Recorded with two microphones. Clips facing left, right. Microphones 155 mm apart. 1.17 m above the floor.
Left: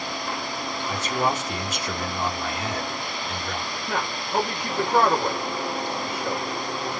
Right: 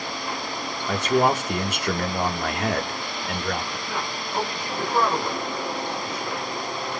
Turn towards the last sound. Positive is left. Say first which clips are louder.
# left 2 dB
turn(degrees=50)  # may be behind; listen again after turning